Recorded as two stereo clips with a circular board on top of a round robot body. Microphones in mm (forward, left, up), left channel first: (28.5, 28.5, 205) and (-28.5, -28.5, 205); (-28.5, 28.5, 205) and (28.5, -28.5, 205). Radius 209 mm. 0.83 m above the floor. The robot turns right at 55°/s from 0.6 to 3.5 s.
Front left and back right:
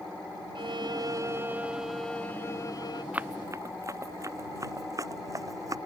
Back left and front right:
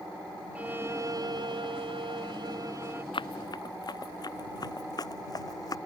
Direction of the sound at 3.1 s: 150° left.